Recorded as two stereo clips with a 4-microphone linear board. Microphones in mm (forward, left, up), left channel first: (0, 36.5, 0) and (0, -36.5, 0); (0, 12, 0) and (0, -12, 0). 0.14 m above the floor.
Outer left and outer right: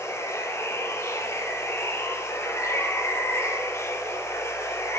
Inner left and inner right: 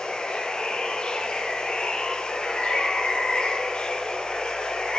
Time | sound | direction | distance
0.0 | running water | 35° left (ahead or behind) | 3 m